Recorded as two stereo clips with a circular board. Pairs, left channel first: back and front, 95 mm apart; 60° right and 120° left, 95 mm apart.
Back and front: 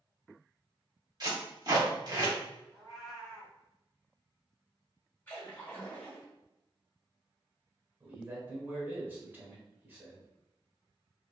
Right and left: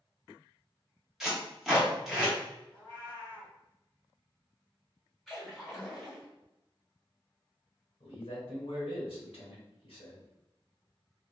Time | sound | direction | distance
1.2 | tape being pulled | 35° left | 1.2 m
2.7 | a cat meowing | 85° right | 1.5 m
5.3 | a splash | 140° right | 1.3 m
8.0 | a man speaking | 70° right | 1.1 m